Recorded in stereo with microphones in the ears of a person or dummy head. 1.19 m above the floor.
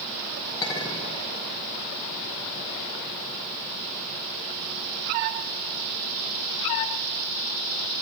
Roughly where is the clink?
Left.